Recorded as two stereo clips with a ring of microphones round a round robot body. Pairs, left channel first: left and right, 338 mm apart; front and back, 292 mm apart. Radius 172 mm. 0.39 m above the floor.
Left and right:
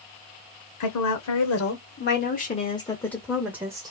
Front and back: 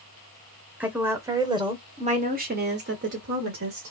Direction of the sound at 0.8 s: 95° left.